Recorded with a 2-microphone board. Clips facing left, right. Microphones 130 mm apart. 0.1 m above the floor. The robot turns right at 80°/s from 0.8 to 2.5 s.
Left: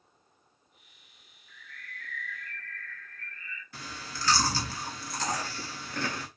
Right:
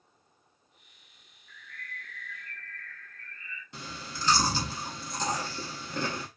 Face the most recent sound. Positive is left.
turn(degrees=-20)  # may be behind; listen again after turning